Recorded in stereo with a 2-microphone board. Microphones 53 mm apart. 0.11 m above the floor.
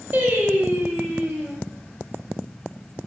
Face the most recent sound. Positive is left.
turn(degrees=-30)  # may be behind; listen again after turning